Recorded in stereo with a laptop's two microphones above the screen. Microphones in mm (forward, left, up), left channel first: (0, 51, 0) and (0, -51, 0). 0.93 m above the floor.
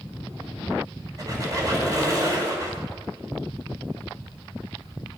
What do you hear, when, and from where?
1.2 s a squeak: 35° right (ahead or behind), 2.5 m